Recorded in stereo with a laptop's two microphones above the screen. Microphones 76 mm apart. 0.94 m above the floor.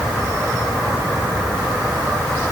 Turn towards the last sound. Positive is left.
No sound to turn to.